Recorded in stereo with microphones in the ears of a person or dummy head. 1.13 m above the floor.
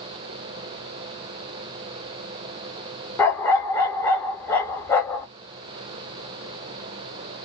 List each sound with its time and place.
3.2 s a dog barking: 10° left (ahead or behind), 0.6 m